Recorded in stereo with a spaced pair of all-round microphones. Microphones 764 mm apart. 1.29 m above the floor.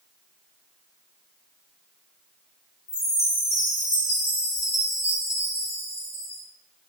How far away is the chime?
About 9 m.